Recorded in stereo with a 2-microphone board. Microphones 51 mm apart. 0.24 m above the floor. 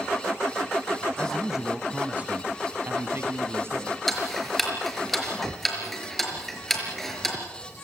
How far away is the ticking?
About 5 m.